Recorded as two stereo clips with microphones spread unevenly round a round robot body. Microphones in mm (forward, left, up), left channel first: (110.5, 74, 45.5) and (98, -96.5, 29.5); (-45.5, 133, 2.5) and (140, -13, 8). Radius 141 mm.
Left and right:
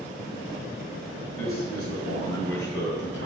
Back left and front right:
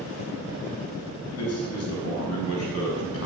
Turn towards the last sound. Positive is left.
turn(degrees=125)